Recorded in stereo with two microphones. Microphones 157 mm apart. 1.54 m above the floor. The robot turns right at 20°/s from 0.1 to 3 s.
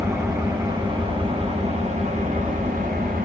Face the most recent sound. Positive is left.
turn(degrees=-105)